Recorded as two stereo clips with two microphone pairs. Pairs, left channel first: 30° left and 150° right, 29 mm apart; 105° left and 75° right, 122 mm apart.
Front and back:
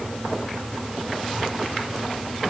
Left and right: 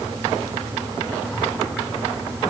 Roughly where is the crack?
I don't hear a crack.